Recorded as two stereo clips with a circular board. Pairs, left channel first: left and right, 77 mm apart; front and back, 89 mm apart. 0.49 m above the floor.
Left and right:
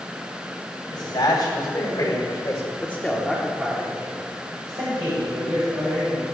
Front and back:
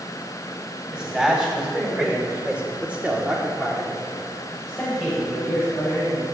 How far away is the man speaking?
About 3.5 m.